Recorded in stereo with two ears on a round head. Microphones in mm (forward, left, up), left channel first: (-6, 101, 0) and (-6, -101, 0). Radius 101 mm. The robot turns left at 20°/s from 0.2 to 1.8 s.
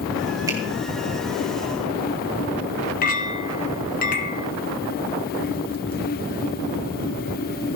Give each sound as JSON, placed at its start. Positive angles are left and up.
{"t": 0.5, "sound": "a finger snap", "side_deg": -15, "distance_m": 3.0}
{"t": 3.0, "sound": "a clink", "side_deg": 40, "distance_m": 1.5}